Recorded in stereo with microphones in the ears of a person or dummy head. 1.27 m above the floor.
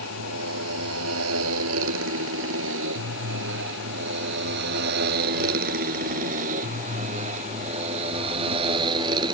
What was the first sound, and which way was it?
A motorcycle, 85° right.